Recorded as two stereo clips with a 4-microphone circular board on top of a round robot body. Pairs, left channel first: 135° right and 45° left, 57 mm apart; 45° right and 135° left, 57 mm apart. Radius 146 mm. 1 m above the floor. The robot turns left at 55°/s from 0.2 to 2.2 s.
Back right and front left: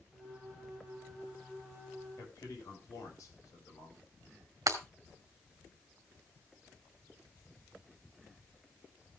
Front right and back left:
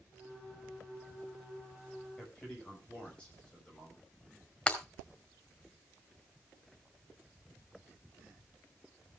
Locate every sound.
2.2 s a man speaking: 115° right, 7 m
4.7 s breaking glass: 25° left, 1.9 m